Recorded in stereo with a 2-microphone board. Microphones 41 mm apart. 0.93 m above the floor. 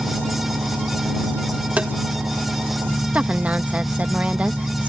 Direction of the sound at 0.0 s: 50° right (ahead or behind).